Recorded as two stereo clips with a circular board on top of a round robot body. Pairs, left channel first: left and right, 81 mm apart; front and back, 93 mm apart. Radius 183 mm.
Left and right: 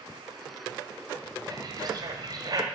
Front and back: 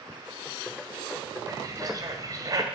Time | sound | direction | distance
1.5 | a bird | 130° right | 1.6 m